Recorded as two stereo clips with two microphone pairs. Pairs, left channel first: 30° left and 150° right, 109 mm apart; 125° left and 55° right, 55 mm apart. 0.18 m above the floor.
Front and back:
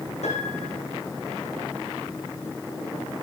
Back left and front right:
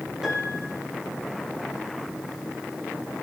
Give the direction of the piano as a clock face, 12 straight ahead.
11 o'clock.